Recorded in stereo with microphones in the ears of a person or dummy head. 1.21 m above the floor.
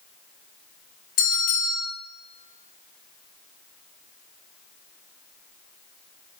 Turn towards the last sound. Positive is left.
turn(degrees=50)  # may be behind; listen again after turning